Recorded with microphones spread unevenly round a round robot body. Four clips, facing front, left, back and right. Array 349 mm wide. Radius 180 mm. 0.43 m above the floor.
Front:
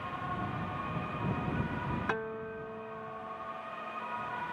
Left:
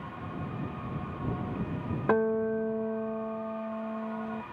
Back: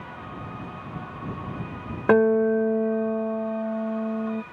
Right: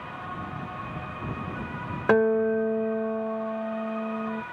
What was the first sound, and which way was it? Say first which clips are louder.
A guitar: right 6 dB, back 18 dB; 165° right.